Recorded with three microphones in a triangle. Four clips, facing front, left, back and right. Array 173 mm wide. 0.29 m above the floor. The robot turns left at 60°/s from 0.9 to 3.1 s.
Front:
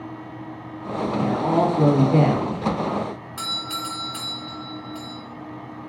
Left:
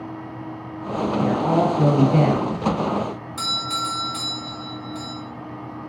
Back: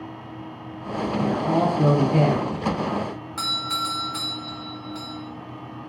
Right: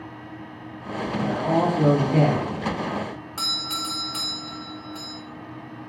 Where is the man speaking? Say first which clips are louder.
Left 2 dB, front 2 dB; 65° left, 5 m; by 2.5 s 15° right, 5 m.